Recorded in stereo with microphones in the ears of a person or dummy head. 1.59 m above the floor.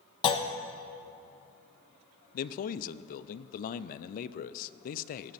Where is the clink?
I don't hear a clink.